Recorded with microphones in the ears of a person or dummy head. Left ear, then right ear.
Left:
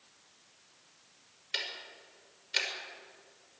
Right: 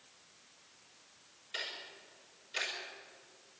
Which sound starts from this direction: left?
Ticking, at 1.5 s.